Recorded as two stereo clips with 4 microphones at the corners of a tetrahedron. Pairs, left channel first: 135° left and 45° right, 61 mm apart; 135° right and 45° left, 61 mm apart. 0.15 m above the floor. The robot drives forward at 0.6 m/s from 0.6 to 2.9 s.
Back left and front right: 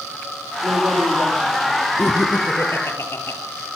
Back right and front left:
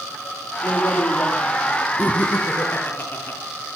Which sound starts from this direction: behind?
Laughter, at 2.0 s.